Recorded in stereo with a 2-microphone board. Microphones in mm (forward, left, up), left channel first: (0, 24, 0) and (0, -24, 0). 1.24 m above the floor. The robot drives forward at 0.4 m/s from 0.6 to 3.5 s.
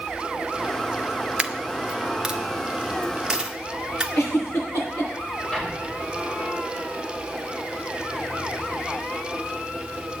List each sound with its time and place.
1.4 s a dropped coin: 25° right (ahead or behind), 0.7 m; by 4.0 s 10° right (ahead or behind), 1.3 m
4.2 s a giggle: 70° left (ahead or behind), 8 m
5.5 s an explosion: 15° left (ahead or behind), 7 m